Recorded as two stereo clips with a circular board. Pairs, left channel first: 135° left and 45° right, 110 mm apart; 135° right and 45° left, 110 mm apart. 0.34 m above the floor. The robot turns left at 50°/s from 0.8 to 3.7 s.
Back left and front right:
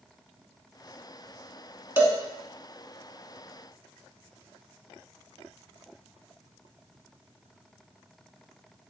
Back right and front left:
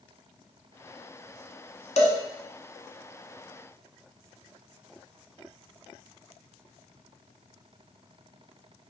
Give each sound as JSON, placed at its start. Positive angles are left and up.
{"t": 2.0, "sound": "a cowbell", "azimuth_deg": -115, "distance_m": 0.7}